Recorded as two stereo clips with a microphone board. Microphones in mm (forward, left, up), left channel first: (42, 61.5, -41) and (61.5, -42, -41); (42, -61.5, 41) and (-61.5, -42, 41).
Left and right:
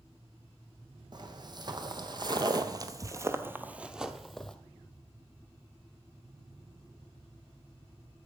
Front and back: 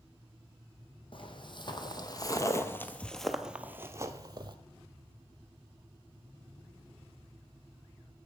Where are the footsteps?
35° right, 1.4 m; by 4.6 s 175° right, 0.9 m.